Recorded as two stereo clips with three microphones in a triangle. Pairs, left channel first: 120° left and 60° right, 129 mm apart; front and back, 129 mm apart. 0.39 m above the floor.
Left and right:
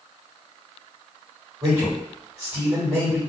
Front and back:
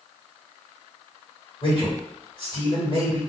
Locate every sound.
1.6 s a man speaking: 15° right, 1.7 m